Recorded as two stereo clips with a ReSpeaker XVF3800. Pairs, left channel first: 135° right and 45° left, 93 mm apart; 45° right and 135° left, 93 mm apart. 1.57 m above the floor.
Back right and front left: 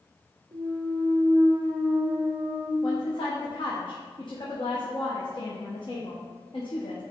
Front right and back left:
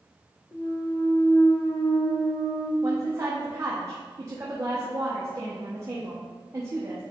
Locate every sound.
0.5 s a clunk: 5° left, 0.8 m
2.8 s a woman speaking: 165° right, 1.2 m